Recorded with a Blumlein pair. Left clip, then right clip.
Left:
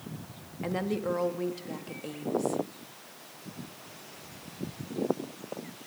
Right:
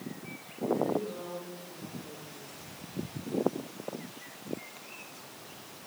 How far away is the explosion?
I don't hear an explosion.